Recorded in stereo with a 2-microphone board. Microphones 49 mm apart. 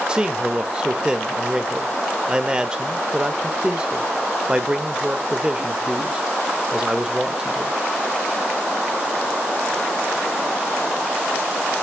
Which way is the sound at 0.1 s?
20° right (ahead or behind).